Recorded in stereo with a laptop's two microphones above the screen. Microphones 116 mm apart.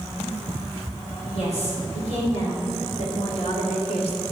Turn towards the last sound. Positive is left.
turn(degrees=60)  # may be behind; listen again after turning